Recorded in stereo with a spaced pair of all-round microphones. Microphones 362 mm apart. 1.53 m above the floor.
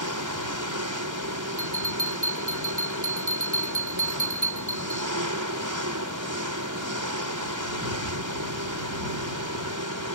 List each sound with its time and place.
0.0 s an engine running: 55° right (ahead or behind)
1.6 s a bell: 55° right (ahead or behind)